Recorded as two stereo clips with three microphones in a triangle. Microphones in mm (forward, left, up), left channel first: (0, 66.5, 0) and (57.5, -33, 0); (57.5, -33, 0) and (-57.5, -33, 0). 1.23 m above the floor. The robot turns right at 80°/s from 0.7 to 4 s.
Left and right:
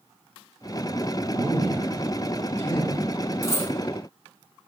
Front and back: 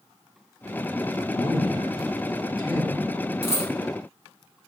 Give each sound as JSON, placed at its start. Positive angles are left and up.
{"t": 1.3, "sound": "a man speaking", "azimuth_deg": -15, "distance_m": 0.9}
{"t": 3.4, "sound": "a dropped coin", "azimuth_deg": 175, "distance_m": 1.7}